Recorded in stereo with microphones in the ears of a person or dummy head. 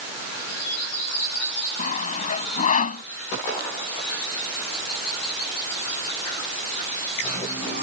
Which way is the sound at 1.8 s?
45° left (ahead or behind).